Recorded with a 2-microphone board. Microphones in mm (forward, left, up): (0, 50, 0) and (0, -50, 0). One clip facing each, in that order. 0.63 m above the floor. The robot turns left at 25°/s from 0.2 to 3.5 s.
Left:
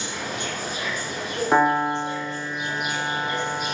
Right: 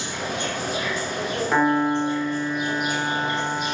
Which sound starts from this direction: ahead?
A piano, at 1.5 s.